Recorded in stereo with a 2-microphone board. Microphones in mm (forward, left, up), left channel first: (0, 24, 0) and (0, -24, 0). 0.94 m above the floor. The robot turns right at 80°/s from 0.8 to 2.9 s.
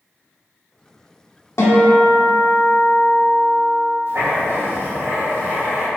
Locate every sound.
1.6 s a guitar: 80° left, 1.2 m; by 3.9 s 175° right, 1.2 m
4.1 s writing: 65° right (ahead or behind), 1.7 m